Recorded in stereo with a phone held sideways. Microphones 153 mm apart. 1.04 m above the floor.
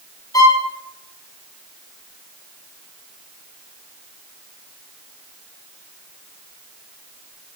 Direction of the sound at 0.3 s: 25° left (ahead or behind).